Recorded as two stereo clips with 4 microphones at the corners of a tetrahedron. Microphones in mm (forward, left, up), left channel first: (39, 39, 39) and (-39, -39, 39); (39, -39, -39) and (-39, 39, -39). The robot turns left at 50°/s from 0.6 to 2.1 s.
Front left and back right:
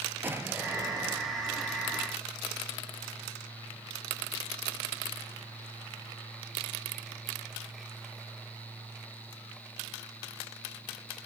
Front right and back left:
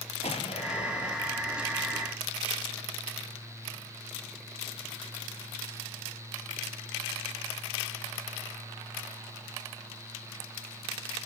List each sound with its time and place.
0.2 s an explosion: 65° right, 1.9 m; by 1.2 s 90° right, 1.9 m